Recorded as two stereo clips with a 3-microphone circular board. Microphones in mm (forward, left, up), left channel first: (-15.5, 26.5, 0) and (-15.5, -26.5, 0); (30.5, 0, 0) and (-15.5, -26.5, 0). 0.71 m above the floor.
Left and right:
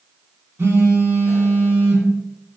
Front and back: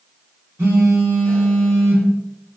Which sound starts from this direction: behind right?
A phone buzzing, at 0.6 s.